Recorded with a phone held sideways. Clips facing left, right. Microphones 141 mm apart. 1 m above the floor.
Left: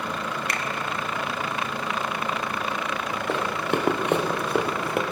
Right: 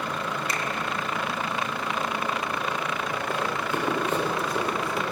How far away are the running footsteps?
About 2.5 m.